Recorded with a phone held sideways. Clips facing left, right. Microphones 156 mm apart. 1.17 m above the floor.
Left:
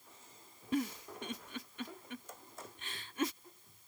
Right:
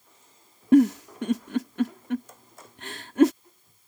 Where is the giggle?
80° right.